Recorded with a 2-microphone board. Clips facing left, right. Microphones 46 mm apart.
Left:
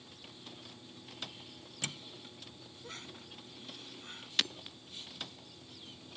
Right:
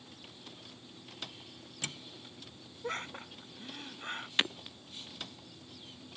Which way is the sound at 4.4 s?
25° right (ahead or behind).